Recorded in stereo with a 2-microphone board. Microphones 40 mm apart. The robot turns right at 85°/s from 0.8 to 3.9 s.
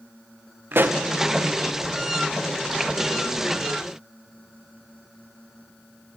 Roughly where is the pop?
Right.